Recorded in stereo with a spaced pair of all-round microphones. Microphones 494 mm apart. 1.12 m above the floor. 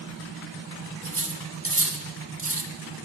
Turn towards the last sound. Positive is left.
turn(degrees=-30)  # may be behind; listen again after turning